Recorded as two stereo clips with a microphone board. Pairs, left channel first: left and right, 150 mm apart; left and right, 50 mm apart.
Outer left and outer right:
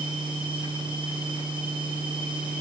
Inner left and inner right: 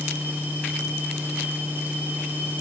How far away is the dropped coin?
I don't hear a dropped coin.